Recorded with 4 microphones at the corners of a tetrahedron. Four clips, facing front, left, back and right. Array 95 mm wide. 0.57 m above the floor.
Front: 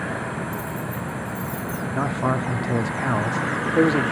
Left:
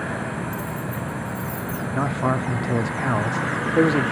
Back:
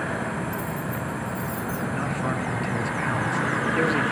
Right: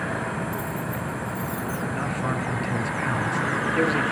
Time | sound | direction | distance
0.5 | keys jangling | 95° right | 3.5 m
1.9 | a man speaking | 45° left | 0.8 m